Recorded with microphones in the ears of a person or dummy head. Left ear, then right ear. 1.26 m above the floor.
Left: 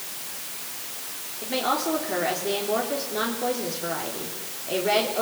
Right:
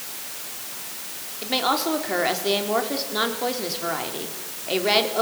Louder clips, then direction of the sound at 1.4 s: Right 3 dB; 35° right (ahead or behind).